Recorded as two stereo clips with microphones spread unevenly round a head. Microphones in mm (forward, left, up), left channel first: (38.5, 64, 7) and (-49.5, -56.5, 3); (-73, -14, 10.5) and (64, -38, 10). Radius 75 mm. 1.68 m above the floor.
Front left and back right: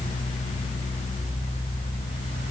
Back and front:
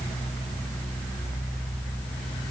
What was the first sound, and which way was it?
Only background noise.